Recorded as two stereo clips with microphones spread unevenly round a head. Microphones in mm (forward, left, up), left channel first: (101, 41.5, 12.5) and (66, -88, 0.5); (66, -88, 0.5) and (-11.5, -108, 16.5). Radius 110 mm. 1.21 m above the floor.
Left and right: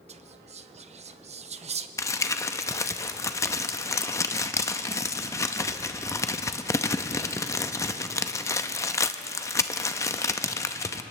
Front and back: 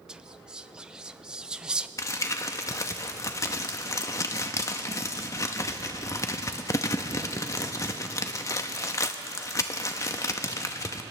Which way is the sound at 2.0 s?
50° left.